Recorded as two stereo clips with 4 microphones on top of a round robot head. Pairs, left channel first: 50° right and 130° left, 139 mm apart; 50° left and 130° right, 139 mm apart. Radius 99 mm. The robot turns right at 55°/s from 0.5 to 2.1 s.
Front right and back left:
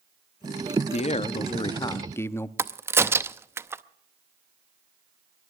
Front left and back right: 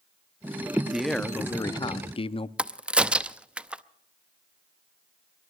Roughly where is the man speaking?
Ahead right.